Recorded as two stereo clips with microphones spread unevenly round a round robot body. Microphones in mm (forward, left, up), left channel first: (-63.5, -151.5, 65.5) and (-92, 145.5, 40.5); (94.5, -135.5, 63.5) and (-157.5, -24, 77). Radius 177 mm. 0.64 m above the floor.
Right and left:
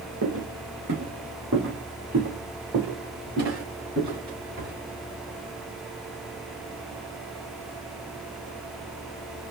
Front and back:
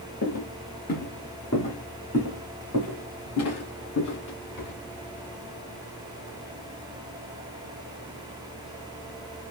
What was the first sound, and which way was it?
Footsteps, 40° left.